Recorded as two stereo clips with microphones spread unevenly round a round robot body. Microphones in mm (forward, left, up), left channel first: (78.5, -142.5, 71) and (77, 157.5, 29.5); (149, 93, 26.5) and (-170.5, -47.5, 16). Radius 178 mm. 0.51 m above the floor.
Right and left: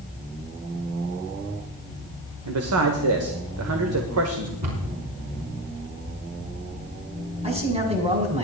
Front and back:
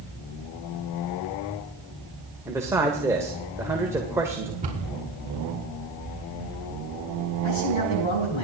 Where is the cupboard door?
135° left, 5 m.